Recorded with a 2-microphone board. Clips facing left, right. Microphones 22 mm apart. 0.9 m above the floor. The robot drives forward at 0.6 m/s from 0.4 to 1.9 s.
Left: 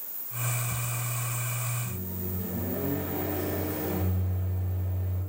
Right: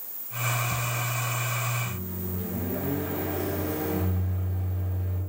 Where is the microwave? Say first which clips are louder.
Right 3 dB; 55° right (ahead or behind), 1.6 m; by 5.2 s 50° right (ahead or behind), 1.6 m.